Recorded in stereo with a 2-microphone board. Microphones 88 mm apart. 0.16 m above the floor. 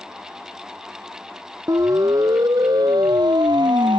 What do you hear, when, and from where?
1.7 s a siren: 40° right (ahead or behind); by 4.0 s 60° right (ahead or behind)